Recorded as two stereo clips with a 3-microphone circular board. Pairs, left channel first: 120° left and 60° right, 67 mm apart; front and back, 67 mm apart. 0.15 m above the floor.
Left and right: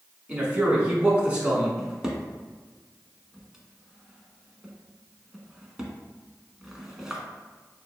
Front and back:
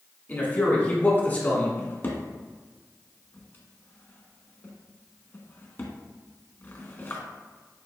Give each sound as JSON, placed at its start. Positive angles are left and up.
{"t": 0.3, "sound": "a man speaking", "azimuth_deg": -10, "distance_m": 1.2}
{"t": 1.8, "sound": "a drawer", "azimuth_deg": 15, "distance_m": 0.8}